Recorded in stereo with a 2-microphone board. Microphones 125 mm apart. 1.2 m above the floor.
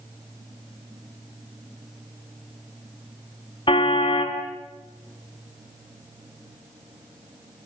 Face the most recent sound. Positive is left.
turn(degrees=45)  # may be behind; listen again after turning